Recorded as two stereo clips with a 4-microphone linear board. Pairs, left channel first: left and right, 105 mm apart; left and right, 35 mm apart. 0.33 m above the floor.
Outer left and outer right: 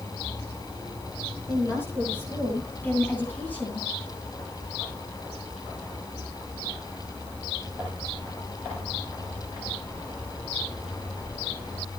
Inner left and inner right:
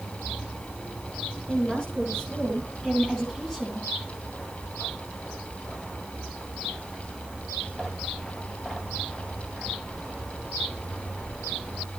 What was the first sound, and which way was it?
A woman speaking, 20° left (ahead or behind).